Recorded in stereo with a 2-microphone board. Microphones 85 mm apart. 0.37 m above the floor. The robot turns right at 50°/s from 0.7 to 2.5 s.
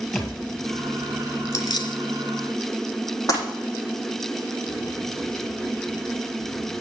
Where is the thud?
Centre (ahead or behind), 3.5 m.